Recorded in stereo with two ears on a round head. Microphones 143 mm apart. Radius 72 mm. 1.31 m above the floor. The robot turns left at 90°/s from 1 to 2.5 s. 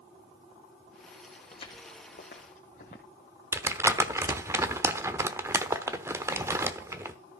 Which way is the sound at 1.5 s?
30° left (ahead or behind).